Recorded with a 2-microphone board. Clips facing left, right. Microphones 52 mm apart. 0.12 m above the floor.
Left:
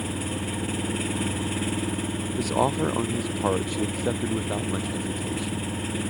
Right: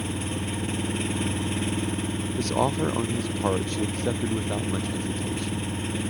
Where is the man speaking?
5° left (ahead or behind).